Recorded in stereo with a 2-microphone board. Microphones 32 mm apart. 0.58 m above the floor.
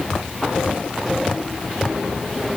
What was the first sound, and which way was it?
Only background noise.